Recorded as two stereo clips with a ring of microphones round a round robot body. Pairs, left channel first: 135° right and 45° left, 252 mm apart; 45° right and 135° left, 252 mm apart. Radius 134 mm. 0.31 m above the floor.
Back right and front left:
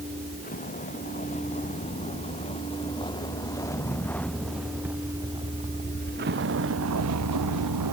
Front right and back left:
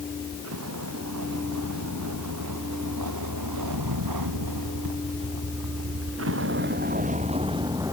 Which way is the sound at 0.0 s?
165° left.